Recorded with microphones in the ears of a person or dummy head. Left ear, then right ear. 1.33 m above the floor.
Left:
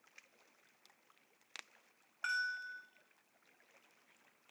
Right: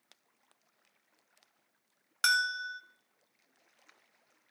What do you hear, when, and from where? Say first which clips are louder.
2.2 s a bell: right 9 dB; 60° right (ahead or behind), 0.9 m